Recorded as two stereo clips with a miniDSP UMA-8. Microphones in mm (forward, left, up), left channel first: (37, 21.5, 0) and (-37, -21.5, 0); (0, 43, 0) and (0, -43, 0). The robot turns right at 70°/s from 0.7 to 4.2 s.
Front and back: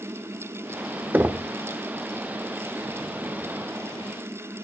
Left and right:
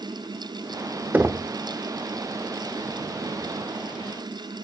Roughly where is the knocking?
Behind right.